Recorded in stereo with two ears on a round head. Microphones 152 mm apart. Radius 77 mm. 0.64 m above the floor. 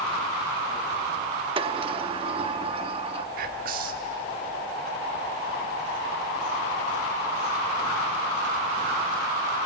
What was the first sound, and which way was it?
A sliding door, 30° right (ahead or behind).